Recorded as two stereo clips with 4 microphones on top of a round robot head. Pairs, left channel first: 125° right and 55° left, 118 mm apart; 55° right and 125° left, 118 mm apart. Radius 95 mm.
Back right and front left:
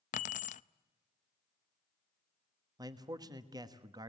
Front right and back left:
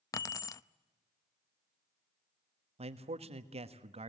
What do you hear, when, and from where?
0.1 s keys jangling: 115° right, 0.5 m
2.8 s a man speaking: 105° left, 1.5 m